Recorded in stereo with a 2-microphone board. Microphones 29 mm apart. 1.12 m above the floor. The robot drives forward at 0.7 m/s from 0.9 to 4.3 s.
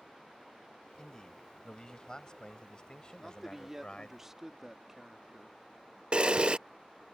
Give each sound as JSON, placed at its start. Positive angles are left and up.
{"t": 1.0, "sound": "a man speaking", "side_deg": 30}
{"t": 3.2, "sound": "a man speaking", "side_deg": -10}
{"t": 6.1, "sound": "a camera shutter", "side_deg": -40}